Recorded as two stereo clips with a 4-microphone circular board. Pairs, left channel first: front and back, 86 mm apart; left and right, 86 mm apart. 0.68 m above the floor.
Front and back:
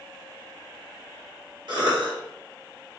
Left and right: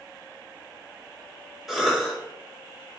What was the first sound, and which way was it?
A cough, 175° right.